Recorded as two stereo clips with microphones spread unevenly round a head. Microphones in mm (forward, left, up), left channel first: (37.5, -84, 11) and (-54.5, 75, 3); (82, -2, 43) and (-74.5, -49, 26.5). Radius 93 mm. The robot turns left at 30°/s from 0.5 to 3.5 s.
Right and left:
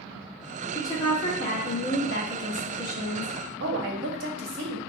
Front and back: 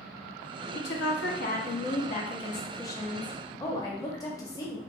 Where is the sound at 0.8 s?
10° left, 0.7 m; by 3.4 s 65° right, 0.7 m.